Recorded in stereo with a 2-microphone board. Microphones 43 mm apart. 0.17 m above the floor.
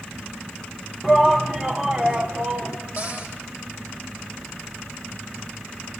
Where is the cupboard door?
40° right (ahead or behind), 6 m.